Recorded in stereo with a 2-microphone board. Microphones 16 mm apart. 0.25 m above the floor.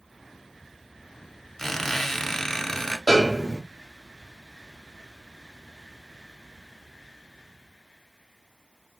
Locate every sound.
1.6 s a squeak: 25° left (ahead or behind), 0.6 m
3.1 s a snare drum: 20° left (ahead or behind), 1.2 m